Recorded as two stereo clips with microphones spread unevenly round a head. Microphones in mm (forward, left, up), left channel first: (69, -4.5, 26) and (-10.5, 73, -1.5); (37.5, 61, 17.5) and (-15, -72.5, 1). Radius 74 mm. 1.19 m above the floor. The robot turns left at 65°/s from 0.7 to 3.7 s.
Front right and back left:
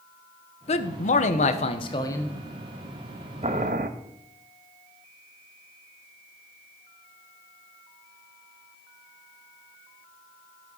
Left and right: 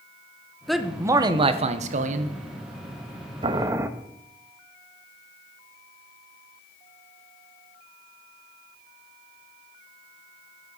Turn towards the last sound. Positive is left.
turn(degrees=175)